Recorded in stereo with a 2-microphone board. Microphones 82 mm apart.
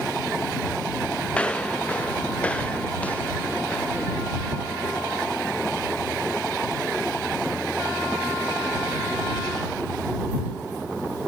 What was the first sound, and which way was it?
Footsteps, 15° left (ahead or behind).